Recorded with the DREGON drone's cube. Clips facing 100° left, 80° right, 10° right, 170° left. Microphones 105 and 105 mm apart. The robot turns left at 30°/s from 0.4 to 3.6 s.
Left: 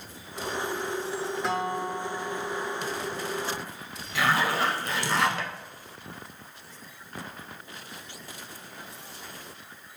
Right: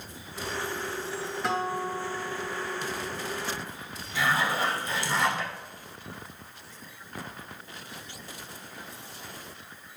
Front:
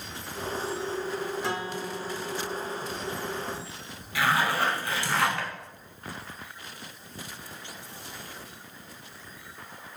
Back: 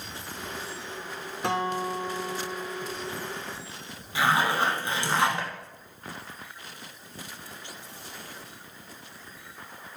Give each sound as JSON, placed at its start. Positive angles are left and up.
{"t": 1.4, "sound": "a guitar", "azimuth_deg": -170, "distance_m": 0.6}
{"t": 4.2, "sound": "a zipper", "azimuth_deg": 105, "distance_m": 0.6}